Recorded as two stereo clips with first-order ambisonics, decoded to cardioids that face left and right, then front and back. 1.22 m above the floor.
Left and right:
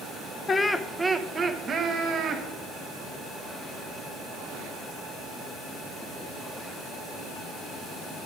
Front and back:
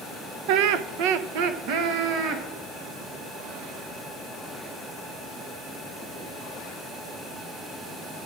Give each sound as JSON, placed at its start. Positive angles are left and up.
{"t": 0.5, "sound": "laughter", "azimuth_deg": 160, "distance_m": 0.6}